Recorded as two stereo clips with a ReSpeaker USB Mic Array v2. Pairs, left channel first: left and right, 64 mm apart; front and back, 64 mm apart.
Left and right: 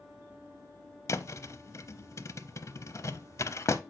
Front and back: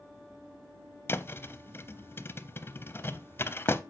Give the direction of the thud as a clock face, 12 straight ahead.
10 o'clock.